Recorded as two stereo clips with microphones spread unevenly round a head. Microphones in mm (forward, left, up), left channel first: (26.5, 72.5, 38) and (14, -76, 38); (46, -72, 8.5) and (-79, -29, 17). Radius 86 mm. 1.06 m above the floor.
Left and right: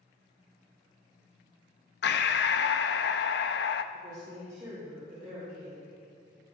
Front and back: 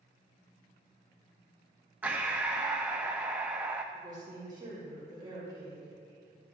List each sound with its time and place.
2.0 s breathing: 80° left, 0.5 m
3.9 s a woman speaking: 145° right, 3.5 m